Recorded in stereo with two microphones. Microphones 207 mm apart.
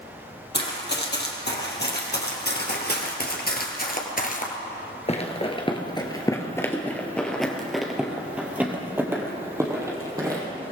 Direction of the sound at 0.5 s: 55° left (ahead or behind).